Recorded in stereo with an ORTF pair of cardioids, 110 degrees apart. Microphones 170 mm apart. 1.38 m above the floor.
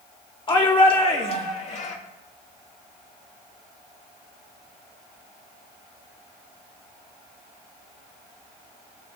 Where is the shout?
30° left, 3.5 m; by 2.0 s 50° left, 2.5 m.